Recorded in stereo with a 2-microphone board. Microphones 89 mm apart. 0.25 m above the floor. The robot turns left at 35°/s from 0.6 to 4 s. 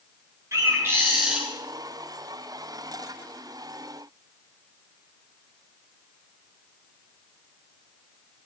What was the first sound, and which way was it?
A bird, 35° right (ahead or behind).